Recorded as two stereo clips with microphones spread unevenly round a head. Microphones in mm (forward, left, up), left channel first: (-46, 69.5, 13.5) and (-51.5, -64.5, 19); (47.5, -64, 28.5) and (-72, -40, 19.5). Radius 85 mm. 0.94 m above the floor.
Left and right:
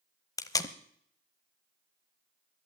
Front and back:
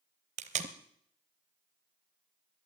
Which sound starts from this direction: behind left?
Tape being pulled, at 0.4 s.